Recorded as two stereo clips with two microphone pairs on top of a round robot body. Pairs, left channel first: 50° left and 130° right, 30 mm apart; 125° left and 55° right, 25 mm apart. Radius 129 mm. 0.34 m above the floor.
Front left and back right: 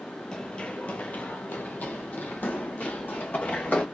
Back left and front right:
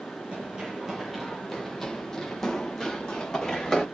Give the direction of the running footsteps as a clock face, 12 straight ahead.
1 o'clock.